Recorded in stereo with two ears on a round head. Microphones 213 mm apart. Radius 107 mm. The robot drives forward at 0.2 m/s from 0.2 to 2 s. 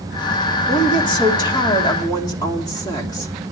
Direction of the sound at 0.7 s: 20° left (ahead or behind).